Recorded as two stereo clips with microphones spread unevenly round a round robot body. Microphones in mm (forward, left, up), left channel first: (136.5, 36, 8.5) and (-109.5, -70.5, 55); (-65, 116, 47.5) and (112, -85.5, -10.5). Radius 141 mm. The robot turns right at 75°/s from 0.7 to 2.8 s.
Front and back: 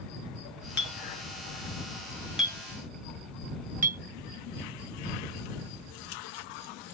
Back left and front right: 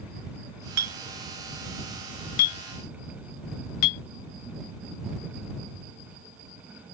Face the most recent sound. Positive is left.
turn(degrees=140)